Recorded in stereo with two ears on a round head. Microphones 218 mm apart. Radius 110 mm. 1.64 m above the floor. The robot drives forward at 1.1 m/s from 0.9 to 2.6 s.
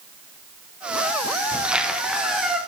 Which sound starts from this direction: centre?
A squeak, at 1.5 s.